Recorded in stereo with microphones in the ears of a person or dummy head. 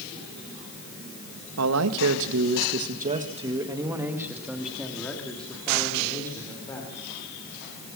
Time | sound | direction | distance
1.6 | a man speaking | 85° right | 1.6 m